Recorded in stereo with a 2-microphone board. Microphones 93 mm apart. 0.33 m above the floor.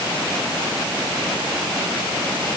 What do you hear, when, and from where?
Only background noise.